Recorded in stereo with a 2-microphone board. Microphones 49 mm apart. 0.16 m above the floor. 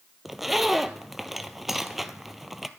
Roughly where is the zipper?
Centre.